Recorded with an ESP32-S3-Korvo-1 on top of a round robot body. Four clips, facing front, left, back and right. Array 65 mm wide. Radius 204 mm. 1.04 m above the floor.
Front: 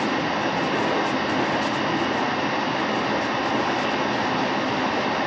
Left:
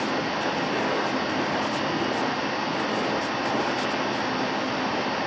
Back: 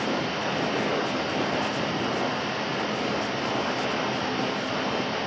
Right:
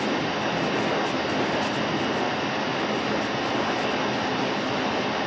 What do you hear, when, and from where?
0.0 s running water: 20° left, 0.9 m